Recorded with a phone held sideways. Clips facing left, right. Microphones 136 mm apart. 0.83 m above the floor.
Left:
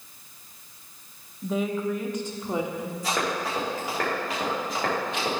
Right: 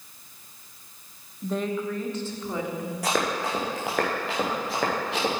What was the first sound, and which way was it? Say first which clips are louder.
A woman speaking: left 1 dB; centre (ahead or behind).